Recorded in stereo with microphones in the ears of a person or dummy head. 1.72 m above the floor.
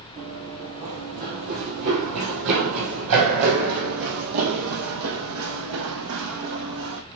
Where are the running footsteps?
30° right (ahead or behind), 2.5 m; by 7.0 s 70° right (ahead or behind), 5 m.